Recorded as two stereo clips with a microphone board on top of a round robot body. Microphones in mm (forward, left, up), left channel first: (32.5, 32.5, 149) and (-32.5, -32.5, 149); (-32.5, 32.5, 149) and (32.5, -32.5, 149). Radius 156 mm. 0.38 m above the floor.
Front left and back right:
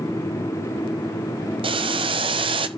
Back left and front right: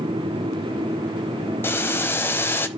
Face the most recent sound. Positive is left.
turn(degrees=-160)